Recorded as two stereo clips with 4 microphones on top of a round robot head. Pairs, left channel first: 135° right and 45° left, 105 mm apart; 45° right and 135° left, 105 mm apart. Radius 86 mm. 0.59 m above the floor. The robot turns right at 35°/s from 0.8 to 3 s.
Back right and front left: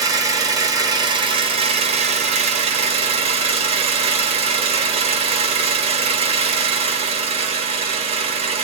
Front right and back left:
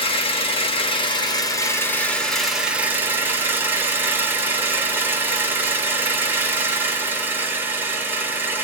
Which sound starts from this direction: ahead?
An engine running, at 0.0 s.